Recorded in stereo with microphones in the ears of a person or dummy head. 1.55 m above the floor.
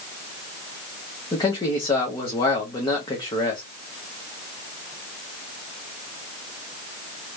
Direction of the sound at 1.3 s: 25° left (ahead or behind).